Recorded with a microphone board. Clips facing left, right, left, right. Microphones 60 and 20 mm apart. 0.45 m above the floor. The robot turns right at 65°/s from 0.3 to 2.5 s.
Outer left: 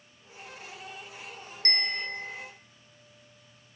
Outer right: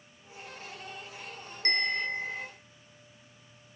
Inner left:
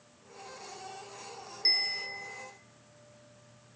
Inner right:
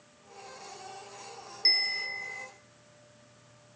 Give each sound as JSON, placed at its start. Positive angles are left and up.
{"t": 1.6, "sound": "a bell", "side_deg": -15, "distance_m": 1.1}